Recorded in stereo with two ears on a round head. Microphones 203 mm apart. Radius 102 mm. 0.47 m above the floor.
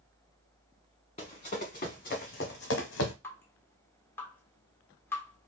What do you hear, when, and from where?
1.2 s running footsteps: 30° left (ahead or behind), 2 m; by 3.1 s 60° left (ahead or behind), 1.0 m
3.2 s dripping: 10° left (ahead or behind), 1.5 m